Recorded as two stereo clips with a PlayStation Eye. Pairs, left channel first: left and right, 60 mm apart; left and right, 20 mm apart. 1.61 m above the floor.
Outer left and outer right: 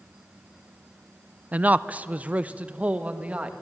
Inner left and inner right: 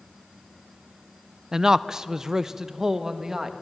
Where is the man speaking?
25° right (ahead or behind), 0.5 m; by 3.5 s 20° right (ahead or behind), 2.0 m.